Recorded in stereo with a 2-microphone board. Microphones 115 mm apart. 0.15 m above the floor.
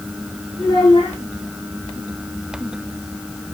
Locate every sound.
0.6 s a child speaking: 55° left (ahead or behind), 6.5 m